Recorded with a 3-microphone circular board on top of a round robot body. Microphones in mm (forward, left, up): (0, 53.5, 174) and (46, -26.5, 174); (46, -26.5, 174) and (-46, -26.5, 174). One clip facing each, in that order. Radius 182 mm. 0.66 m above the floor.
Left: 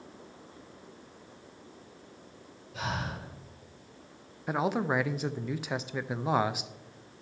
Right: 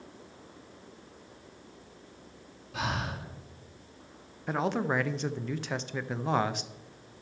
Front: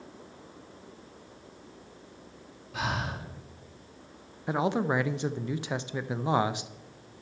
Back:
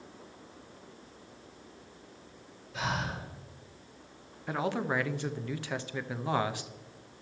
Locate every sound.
2.7 s breathing: 35° right, 2.5 m
4.5 s a man speaking: 45° left, 0.6 m